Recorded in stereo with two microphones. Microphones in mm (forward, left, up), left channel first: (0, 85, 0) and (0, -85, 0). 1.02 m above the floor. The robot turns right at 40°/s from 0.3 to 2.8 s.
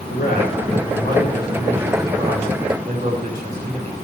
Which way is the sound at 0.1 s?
115° left.